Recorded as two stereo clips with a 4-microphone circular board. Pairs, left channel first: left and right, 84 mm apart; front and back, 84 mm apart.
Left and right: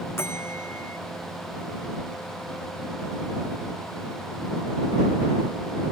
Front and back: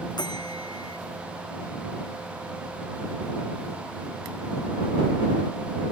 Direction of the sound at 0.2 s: 30° left.